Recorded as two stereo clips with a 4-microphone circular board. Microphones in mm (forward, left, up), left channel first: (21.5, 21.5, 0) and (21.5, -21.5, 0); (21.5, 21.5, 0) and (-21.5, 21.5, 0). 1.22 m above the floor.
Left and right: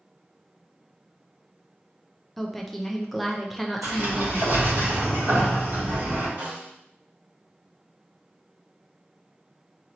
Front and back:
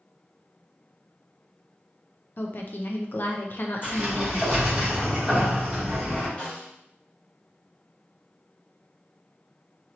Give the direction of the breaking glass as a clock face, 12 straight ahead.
I don't hear breaking glass.